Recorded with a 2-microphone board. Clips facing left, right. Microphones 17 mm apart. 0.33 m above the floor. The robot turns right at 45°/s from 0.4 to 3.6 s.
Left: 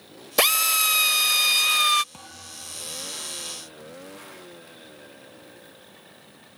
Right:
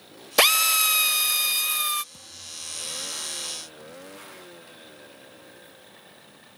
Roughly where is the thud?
Ahead left.